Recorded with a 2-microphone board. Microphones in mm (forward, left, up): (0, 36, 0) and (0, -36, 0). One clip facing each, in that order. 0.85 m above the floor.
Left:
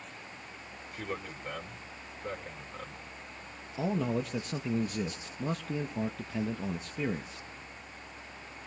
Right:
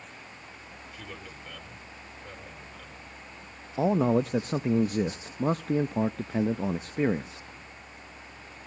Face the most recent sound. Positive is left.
turn(degrees=-45)  # may be behind; listen again after turning